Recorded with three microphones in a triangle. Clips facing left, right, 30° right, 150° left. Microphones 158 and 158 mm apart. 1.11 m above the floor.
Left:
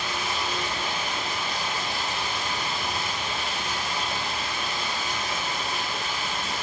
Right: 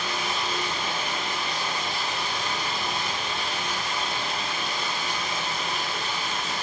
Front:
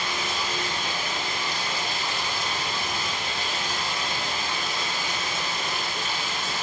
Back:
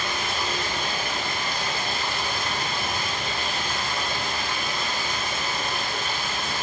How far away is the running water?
About 1.9 m.